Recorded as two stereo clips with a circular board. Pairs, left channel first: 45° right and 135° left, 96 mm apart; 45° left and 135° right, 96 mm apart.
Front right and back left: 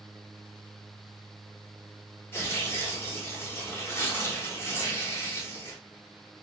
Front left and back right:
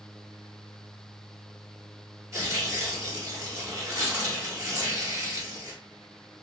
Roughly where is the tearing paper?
Right.